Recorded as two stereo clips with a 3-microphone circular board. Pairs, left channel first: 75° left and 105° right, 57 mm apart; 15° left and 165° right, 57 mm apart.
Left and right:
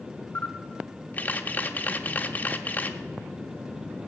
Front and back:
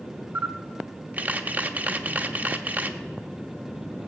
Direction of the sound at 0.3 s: 130° left.